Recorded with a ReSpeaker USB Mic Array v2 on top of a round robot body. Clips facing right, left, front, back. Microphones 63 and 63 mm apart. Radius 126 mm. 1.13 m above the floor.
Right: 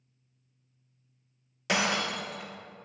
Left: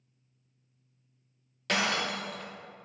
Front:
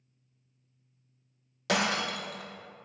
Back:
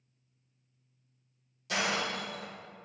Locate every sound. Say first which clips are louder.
1.7 s breaking glass: right 1 dB, front 3 dB; 10° right, 0.5 m